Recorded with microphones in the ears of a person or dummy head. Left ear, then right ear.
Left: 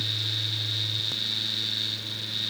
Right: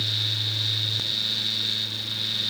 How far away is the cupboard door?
No cupboard door in this recording.